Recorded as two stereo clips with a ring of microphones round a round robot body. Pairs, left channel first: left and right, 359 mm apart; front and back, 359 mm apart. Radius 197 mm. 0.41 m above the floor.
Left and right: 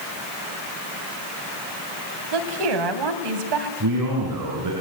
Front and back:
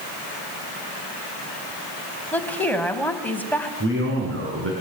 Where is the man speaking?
125° right, 5 m.